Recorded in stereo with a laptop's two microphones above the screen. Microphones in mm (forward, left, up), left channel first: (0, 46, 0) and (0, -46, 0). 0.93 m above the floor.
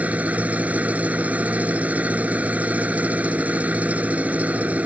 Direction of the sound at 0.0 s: 15° right (ahead or behind).